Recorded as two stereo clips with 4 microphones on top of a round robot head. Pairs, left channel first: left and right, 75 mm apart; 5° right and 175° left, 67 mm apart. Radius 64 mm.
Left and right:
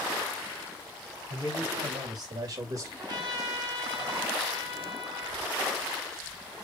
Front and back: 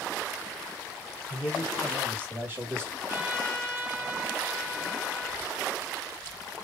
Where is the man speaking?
105° right, 3.5 m; by 2.9 s 135° right, 1.8 m.